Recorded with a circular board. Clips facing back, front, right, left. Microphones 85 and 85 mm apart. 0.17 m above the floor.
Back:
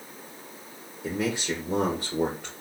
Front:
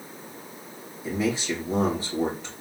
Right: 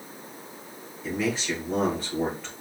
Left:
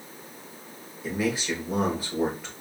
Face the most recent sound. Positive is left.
turn(degrees=170)